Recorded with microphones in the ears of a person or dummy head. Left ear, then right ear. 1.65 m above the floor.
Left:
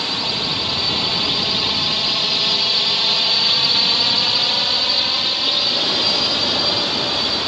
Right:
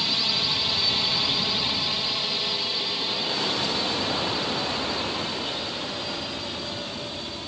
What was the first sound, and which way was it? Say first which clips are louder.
A drone: left 2 dB; 5° right (ahead or behind).